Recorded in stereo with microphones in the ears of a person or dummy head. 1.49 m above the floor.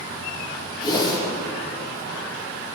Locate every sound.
0.8 s a whoosh: 30° left (ahead or behind), 1.9 m